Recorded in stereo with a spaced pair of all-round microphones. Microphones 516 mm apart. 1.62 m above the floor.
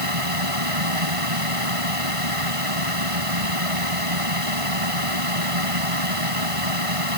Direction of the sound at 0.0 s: 80° right.